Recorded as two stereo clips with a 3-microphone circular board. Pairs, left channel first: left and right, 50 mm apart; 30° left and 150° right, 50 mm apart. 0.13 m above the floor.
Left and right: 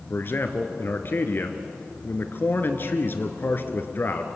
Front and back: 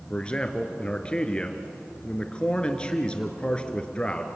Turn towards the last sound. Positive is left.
turn(degrees=90)